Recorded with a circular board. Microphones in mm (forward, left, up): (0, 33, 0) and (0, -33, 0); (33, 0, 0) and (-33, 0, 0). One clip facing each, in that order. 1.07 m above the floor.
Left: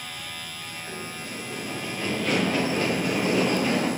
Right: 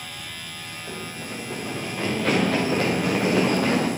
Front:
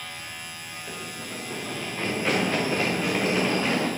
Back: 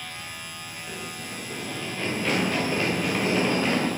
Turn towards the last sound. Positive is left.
turn(degrees=-85)